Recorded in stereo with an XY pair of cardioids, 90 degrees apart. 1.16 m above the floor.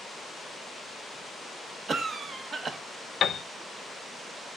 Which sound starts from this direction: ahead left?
A piano, at 3.2 s.